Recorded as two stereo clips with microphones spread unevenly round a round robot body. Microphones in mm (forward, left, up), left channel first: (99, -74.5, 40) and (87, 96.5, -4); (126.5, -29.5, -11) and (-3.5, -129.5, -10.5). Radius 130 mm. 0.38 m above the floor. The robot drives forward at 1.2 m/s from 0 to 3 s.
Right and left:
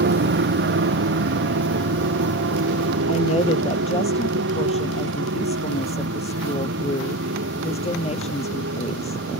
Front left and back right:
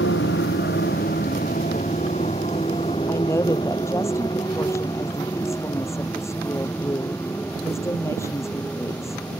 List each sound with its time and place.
0.0 s a motorcycle: 85° left; by 9.4 s 125° left
3.1 s a woman speaking: 35° right